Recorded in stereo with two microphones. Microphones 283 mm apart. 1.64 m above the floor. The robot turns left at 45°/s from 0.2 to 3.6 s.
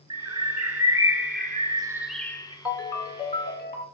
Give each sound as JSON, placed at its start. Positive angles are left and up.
{"t": 0.1, "sound": "a bird", "azimuth_deg": -95, "distance_m": 0.8}
{"t": 2.6, "sound": "a ringtone", "azimuth_deg": 180, "distance_m": 1.6}